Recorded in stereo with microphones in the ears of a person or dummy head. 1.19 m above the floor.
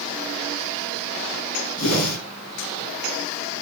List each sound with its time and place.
1.8 s a whoosh: 80° left, 4.5 m